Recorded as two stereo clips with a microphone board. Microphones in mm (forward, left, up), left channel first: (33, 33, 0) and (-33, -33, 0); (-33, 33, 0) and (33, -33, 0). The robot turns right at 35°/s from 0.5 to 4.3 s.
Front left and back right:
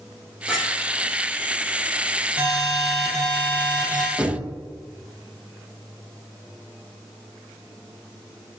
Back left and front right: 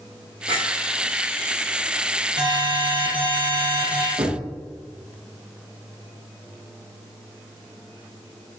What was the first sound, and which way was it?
A clink, 45° right.